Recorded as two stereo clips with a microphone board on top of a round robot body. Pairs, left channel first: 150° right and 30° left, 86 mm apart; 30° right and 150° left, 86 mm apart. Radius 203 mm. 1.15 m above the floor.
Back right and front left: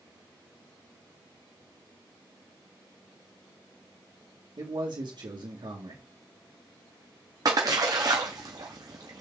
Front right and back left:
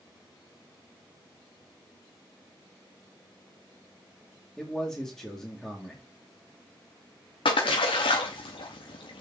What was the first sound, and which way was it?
A man speaking, 60° left.